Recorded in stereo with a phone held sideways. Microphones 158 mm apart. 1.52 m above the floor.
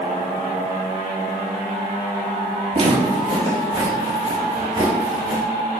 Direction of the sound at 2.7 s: 40° right (ahead or behind).